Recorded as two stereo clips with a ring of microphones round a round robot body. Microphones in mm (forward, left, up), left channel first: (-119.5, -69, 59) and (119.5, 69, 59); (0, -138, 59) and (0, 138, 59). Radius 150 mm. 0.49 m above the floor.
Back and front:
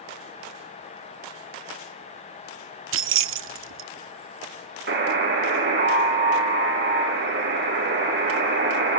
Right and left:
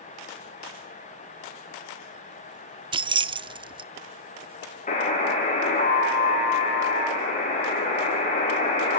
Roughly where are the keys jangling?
Ahead left.